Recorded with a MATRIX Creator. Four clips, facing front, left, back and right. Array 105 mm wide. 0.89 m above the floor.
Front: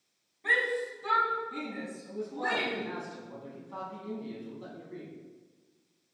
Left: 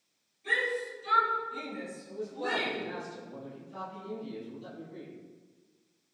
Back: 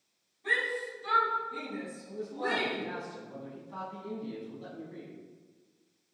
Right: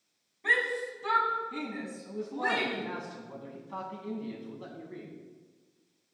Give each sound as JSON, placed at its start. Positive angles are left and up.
{"t": 0.4, "sound": "a shout", "azimuth_deg": -65, "distance_m": 7.5}
{"t": 2.1, "sound": "a man speaking", "azimuth_deg": -80, "distance_m": 6.5}